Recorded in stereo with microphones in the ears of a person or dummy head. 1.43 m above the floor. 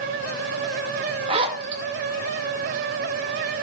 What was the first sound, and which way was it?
A zipper, 30° right (ahead or behind).